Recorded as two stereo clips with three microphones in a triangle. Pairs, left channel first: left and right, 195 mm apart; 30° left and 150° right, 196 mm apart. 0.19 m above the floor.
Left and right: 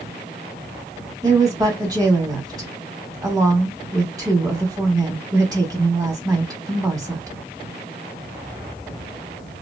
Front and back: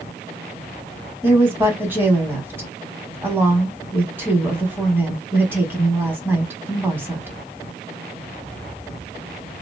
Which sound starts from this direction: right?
A woman speaking, at 1.2 s.